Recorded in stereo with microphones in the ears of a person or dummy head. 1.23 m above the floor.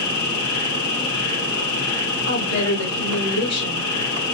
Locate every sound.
0.0 s an insect: 85° left, 2.5 m
2.3 s a woman speaking: 80° left, 1.7 m